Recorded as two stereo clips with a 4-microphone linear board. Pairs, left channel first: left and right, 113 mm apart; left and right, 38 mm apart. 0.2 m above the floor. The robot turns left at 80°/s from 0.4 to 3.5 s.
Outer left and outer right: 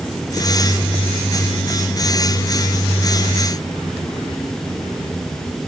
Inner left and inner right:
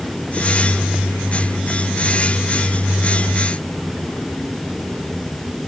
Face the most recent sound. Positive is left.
No sound to turn to.